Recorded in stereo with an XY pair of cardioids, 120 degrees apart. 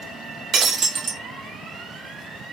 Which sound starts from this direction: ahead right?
Breaking glass, at 0.5 s.